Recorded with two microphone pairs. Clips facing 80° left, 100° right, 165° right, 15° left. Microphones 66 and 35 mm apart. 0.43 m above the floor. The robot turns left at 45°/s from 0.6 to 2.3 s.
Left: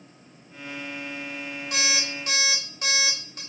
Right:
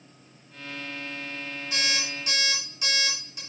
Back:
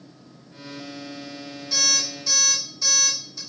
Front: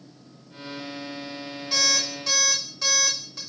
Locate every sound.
1.7 s an alarm clock: 70° left, 1.1 m; by 3.4 s 40° left, 1.1 m